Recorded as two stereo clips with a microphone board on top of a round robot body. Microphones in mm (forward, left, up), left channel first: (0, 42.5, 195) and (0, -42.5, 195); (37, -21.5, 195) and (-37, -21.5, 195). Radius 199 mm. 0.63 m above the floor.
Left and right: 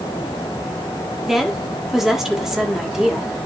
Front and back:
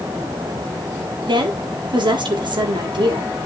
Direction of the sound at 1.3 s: 175° right.